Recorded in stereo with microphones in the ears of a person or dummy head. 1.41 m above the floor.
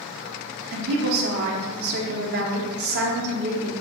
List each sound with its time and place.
0.7 s a woman speaking: 55° right (ahead or behind), 0.9 m